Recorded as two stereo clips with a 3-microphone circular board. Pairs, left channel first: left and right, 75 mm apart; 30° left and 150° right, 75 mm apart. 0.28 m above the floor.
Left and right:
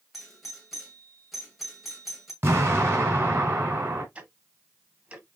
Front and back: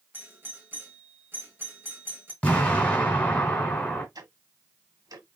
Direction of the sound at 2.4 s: 40° right.